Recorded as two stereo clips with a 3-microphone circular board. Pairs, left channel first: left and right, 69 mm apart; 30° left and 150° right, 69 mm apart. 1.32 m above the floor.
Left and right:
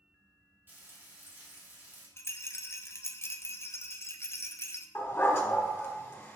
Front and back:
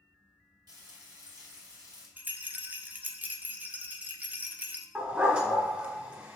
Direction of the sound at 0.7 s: 150° right.